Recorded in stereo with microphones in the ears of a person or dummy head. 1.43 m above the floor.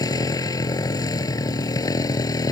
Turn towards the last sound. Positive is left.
turn(degrees=20)  # may be behind; listen again after turning